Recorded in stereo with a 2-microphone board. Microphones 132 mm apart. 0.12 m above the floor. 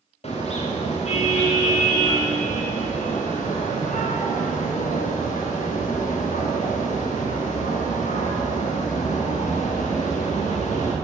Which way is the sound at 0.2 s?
55° left (ahead or behind).